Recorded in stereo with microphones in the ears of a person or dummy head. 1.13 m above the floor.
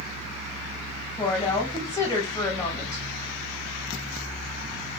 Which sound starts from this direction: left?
A woman speaking, at 1.1 s.